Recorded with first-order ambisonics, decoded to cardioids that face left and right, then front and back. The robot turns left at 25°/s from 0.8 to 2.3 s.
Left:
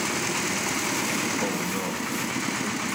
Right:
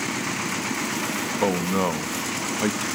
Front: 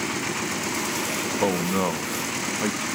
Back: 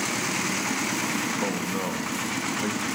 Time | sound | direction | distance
1.4 | a man speaking | 45° right | 1.3 m